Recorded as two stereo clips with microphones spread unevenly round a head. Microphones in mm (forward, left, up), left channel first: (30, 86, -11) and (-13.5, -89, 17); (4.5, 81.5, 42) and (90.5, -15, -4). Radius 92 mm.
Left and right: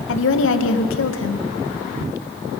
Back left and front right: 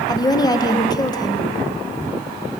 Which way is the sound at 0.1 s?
70° left.